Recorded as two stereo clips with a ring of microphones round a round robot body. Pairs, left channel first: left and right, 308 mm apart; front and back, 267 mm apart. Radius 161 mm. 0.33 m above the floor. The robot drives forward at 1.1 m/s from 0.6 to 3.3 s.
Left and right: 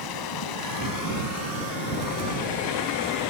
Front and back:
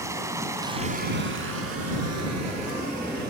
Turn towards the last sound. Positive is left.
turn(degrees=160)